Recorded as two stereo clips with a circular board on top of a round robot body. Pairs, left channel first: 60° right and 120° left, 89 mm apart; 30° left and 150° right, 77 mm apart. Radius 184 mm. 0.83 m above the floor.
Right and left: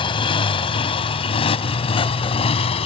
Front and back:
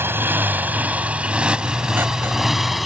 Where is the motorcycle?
90° right; by 2.9 s 60° right.